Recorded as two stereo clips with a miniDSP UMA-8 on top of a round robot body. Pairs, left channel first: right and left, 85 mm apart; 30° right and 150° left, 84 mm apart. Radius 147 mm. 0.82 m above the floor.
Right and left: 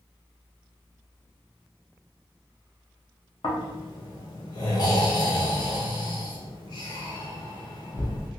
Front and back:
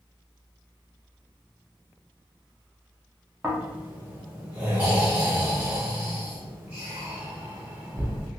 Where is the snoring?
135° right, 0.6 m.